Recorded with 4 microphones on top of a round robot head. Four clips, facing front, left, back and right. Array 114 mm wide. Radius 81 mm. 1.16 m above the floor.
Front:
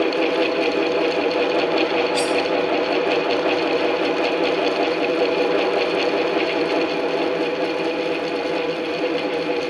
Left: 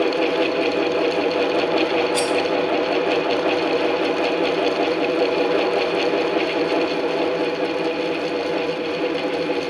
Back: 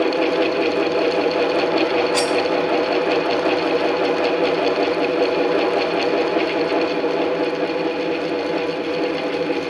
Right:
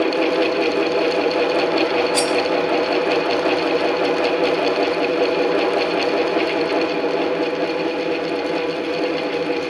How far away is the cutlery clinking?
About 1.0 m.